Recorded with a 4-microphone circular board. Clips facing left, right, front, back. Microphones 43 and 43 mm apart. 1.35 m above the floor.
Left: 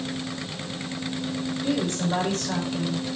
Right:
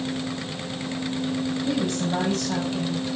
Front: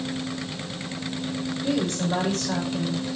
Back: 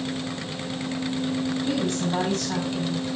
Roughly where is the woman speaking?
Ahead left.